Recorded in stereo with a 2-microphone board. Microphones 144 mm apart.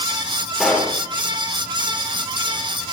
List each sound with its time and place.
0.6 s a pop: centre (ahead or behind), 3.5 m